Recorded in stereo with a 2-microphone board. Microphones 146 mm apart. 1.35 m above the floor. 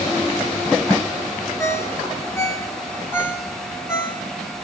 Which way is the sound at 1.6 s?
20° left (ahead or behind).